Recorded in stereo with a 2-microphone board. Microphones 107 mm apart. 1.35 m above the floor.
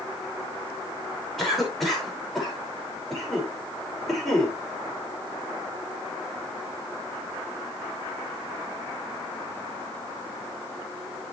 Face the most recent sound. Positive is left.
turn(degrees=0)  # may be behind; listen again after turning